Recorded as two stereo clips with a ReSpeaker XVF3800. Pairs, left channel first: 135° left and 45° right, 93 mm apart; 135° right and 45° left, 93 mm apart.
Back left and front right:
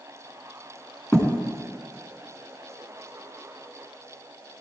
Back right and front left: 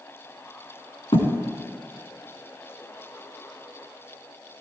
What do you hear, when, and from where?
1.1 s a thud: 150° right, 4 m